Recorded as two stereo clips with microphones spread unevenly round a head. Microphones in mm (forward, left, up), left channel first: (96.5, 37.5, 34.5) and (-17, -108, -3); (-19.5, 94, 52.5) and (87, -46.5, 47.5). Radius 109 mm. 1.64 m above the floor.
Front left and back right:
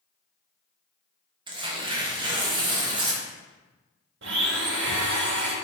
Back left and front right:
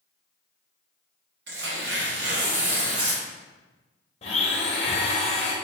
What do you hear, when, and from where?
1.5 s tearing paper: 60° right, 0.9 m
4.2 s a blender: 170° right, 0.6 m